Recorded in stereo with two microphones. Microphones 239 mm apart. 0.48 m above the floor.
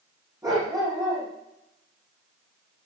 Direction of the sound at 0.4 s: 15° right (ahead or behind).